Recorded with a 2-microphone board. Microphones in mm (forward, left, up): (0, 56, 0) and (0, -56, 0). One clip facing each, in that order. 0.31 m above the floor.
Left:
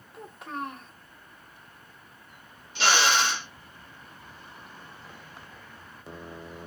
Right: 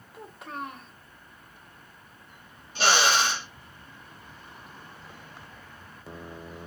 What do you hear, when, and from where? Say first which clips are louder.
0.1 s a child speaking: left 2 dB; centre (ahead or behind), 0.7 m
2.8 s a drill: right 1 dB; 40° right (ahead or behind), 1.4 m